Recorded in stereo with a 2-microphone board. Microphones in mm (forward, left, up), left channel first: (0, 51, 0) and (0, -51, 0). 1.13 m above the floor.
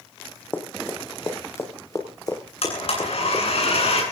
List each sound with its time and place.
0.5 s running footsteps: 20° left (ahead or behind), 3.5 m; by 3.4 s 45° left (ahead or behind), 5 m
2.6 s a blender: 75° left (ahead or behind), 9.5 m